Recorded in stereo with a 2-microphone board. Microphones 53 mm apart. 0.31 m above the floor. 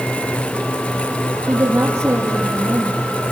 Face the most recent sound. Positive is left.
turn(degrees=-70)  # may be behind; listen again after turning